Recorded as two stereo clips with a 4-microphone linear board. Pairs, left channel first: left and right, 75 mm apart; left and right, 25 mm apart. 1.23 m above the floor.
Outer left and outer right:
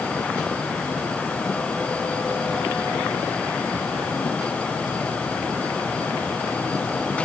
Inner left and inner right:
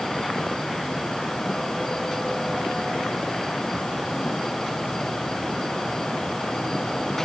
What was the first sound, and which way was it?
Only background noise.